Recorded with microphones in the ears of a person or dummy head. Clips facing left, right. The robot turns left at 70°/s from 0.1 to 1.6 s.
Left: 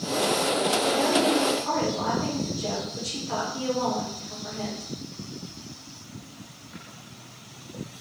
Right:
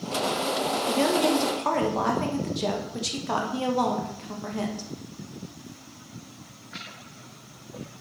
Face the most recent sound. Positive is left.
turn(degrees=-85)